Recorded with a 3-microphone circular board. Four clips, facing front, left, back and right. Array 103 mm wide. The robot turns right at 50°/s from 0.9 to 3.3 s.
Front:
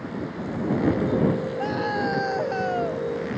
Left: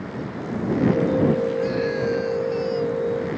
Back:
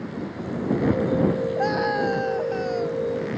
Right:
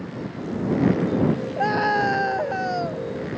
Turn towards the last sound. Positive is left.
turn(degrees=-25)